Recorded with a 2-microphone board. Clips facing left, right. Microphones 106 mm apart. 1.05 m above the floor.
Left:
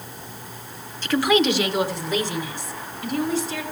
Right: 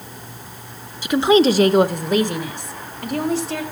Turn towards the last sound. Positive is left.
turn(degrees=-65)  # may be behind; listen again after turning